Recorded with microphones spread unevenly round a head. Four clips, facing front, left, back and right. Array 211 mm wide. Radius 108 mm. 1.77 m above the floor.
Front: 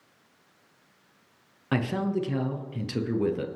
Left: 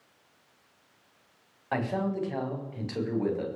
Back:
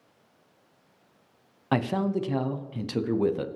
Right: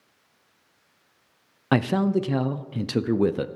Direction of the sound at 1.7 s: 95° right.